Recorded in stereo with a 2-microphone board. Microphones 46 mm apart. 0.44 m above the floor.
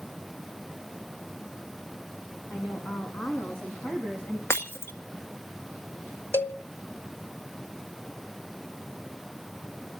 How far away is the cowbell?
About 1.6 m.